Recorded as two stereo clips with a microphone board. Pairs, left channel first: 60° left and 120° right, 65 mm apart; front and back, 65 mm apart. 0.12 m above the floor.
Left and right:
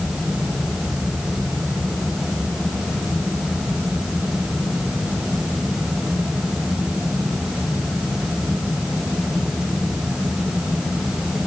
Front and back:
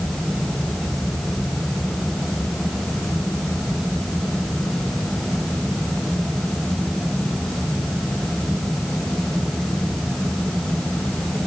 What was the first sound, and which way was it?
Only background noise.